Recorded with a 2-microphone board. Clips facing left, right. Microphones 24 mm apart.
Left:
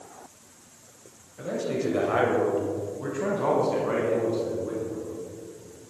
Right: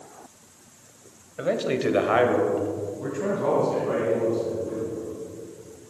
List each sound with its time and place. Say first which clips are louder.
1.4 s a man speaking: right 4 dB; 65° right (ahead or behind), 1.9 m; by 5.2 s 30° left (ahead or behind), 5.5 m